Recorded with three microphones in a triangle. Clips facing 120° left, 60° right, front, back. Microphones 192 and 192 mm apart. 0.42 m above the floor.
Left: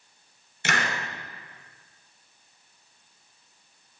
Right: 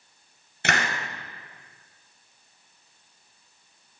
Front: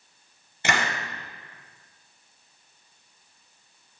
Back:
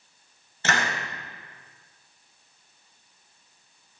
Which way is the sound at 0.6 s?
75° right.